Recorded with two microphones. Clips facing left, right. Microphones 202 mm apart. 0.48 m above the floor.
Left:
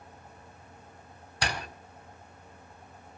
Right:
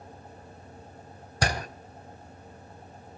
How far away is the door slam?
About 2 m.